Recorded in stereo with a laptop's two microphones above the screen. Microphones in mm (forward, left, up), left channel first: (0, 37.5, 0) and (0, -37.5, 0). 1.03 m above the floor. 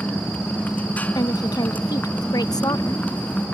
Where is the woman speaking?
60° left (ahead or behind).